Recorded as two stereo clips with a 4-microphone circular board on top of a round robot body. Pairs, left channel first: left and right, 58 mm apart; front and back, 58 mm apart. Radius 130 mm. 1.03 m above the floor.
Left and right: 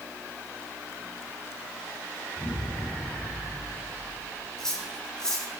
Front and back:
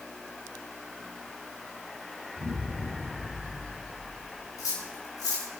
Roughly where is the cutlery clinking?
Ahead.